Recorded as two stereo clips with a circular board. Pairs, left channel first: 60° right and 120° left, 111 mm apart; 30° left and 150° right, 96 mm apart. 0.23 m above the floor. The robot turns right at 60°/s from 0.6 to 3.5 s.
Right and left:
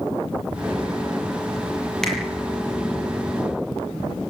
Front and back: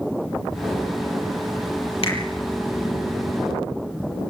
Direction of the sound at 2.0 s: 25° left.